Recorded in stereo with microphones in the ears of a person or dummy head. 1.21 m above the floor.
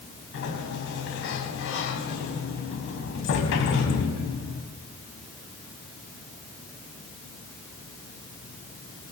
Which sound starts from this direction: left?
A sliding door, at 0.3 s.